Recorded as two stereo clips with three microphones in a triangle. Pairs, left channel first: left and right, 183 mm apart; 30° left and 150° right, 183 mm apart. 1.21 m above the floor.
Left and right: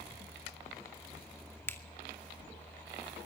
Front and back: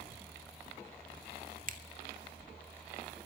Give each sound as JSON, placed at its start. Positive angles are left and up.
{"t": 1.7, "sound": "a finger snap", "azimuth_deg": 170, "distance_m": 2.5}